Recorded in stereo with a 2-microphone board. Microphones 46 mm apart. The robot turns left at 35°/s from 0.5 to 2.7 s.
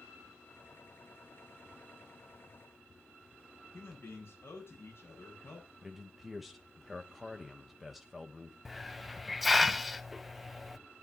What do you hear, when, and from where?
3.7 s a man speaking: 60° left (ahead or behind), 8 m
5.8 s a man speaking: 5° right (ahead or behind), 1.2 m
8.7 s a hiss: centre (ahead or behind), 0.5 m